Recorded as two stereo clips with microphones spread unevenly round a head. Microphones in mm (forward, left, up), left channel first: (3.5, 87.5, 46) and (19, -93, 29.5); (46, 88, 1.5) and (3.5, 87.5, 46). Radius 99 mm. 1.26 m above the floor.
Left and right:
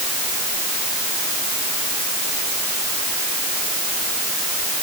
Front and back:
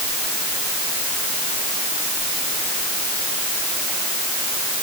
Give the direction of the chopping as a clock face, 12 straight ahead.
I don't hear chopping.